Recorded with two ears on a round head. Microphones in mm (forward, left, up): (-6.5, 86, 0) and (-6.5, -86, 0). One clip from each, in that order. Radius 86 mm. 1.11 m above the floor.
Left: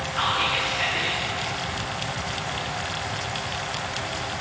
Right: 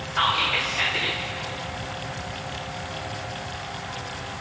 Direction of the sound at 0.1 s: 35° right (ahead or behind).